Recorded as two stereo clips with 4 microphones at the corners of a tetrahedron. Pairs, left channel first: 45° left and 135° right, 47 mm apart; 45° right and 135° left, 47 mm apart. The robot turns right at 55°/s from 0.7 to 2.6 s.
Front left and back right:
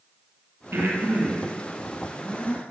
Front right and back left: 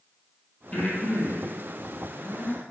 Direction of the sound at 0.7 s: 105° right.